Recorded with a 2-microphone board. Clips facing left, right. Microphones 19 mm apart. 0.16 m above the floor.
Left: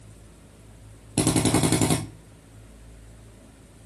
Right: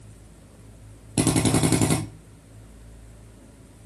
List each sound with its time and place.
1.2 s a drill: 10° left (ahead or behind), 2.0 m